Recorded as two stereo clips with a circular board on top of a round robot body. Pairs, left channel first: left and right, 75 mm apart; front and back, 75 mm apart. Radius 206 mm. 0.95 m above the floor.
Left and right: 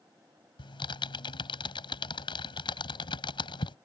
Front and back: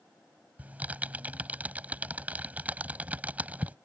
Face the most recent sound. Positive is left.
turn(degrees=110)